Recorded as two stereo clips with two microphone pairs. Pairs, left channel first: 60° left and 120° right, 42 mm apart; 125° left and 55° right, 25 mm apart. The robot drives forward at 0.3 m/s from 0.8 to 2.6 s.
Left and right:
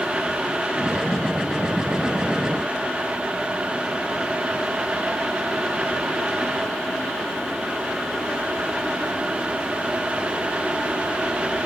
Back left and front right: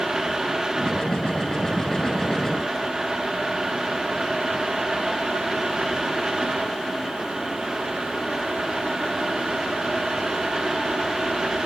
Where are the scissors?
No scissors in this recording.